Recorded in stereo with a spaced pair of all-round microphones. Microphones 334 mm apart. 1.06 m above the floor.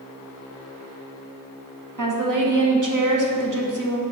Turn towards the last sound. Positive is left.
turn(degrees=-65)  # may be behind; listen again after turning